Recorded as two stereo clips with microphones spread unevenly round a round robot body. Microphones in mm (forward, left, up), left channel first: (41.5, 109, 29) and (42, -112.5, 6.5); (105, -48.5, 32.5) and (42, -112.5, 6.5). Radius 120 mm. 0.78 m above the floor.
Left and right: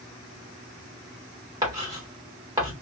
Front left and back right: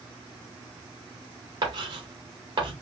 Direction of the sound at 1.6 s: 160° right.